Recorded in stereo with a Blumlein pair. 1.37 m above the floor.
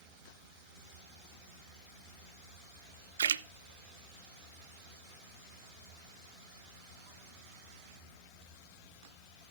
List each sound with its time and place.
3.2 s a splash: 70° right, 0.5 m